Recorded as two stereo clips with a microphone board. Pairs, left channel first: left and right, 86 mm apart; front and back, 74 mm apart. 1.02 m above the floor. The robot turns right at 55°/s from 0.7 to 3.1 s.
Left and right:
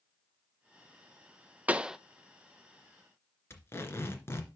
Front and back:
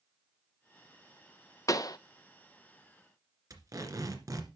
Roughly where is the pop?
Ahead right.